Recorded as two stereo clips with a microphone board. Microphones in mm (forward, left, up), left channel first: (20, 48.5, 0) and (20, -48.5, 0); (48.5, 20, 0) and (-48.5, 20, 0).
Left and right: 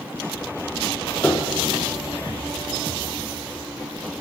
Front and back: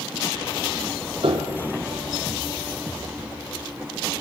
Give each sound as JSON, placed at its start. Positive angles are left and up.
{"t": 1.2, "sound": "a piano", "azimuth_deg": 160, "distance_m": 2.5}